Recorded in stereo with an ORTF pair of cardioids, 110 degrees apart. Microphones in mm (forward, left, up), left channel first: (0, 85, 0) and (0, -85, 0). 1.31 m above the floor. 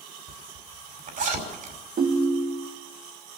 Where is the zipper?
55° right, 5.5 m.